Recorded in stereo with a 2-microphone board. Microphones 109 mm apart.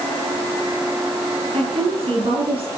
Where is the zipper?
I don't hear a zipper.